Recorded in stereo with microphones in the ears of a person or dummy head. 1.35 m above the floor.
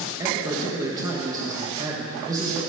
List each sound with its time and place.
0.2 s a man speaking: 20° right (ahead or behind), 1.5 m